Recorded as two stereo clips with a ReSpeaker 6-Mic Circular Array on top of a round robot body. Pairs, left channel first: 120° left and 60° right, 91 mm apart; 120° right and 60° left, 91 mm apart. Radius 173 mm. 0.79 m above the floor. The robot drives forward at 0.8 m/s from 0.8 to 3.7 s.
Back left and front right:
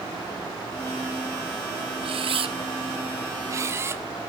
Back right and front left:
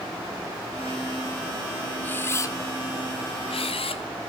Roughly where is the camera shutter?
Ahead right.